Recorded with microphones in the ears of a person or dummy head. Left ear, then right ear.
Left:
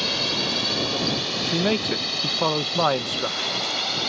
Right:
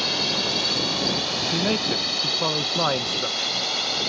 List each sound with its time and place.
0.0 s a drone: centre (ahead or behind)
1.4 s a man speaking: 10° left (ahead or behind)